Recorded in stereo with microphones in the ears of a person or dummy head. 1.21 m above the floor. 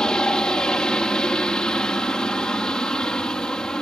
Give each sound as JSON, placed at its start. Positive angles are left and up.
{"t": 0.0, "sound": "a helicopter", "side_deg": 5}